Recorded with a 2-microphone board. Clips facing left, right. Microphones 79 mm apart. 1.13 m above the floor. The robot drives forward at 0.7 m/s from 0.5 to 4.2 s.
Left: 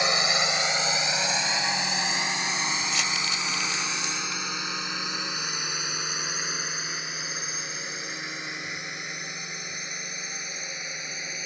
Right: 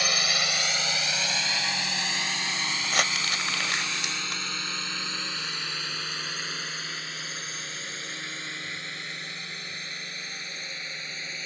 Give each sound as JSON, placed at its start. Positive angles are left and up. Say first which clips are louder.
{"t": 0.0, "sound": "a drone", "louder": "left 4 dB", "side_deg": 25}
{"t": 2.8, "sound": "crumpling", "louder": "right 1 dB", "side_deg": -60}